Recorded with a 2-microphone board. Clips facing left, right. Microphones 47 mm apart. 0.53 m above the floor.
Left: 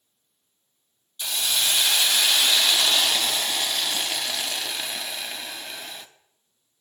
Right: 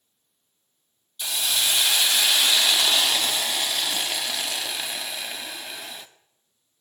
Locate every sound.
1.2 s a hiss: 5° right (ahead or behind), 0.6 m